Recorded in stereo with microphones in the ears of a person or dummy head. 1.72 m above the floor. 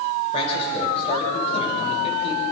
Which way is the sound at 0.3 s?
35° left (ahead or behind).